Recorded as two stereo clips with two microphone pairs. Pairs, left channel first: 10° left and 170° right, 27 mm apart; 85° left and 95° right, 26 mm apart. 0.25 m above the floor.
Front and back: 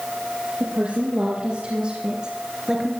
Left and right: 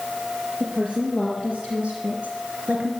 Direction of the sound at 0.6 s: 130° right.